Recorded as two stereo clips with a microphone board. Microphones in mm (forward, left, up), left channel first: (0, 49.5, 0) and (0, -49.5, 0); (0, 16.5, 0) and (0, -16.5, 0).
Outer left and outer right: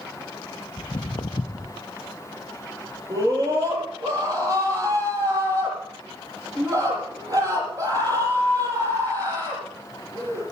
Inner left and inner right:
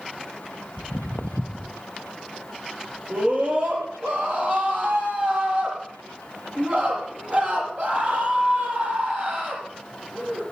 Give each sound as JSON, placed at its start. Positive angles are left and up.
{"t": 0.8, "sound": "footsteps", "side_deg": 55, "distance_m": 0.6}
{"t": 3.1, "sound": "a scream", "side_deg": -40, "distance_m": 8.0}